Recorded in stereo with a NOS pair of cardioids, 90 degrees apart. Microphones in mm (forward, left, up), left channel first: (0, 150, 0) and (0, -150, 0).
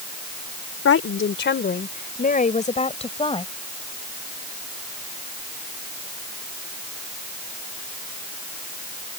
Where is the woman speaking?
45° left; by 3.5 s 15° left.